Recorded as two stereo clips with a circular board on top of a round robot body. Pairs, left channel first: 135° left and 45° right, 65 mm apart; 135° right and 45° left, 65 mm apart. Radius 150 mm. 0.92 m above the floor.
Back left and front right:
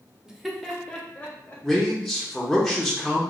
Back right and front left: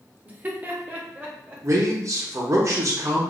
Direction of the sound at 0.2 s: 20° left.